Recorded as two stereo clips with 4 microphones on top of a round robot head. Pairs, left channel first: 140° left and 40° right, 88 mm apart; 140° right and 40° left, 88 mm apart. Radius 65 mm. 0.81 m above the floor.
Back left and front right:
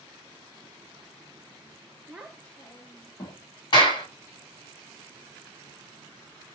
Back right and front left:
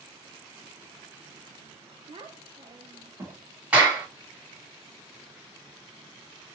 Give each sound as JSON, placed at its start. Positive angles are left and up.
{"t": 2.1, "sound": "a child speaking", "azimuth_deg": 35, "distance_m": 0.7}
{"t": 3.7, "sound": "a clap", "azimuth_deg": 115, "distance_m": 2.0}